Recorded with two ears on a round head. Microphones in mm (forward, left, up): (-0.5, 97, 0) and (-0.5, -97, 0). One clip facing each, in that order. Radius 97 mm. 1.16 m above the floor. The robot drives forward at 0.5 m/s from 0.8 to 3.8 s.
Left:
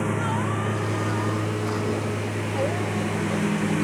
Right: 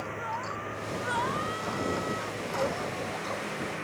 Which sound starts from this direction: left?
A lawn mower, at 0.0 s.